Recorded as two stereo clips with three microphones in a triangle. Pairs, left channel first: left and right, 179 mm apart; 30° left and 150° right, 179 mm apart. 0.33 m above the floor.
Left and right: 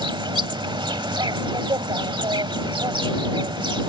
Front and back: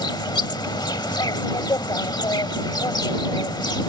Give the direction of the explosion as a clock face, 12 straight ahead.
No explosion in this recording.